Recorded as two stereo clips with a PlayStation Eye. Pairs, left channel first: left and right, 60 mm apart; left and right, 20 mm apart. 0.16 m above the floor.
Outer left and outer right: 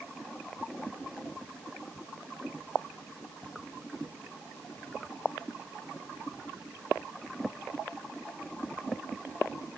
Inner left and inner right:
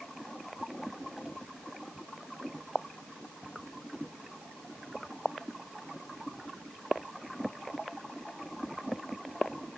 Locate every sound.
Only background noise.